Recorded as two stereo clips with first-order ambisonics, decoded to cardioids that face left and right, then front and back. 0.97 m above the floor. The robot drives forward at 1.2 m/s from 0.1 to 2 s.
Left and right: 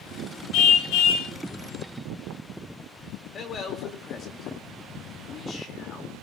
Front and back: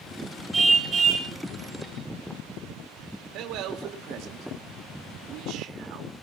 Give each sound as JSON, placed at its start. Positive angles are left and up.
{"t": 0.5, "sound": "a car horn", "azimuth_deg": 100, "distance_m": 2.0}
{"t": 3.3, "sound": "a man speaking", "azimuth_deg": 155, "distance_m": 2.5}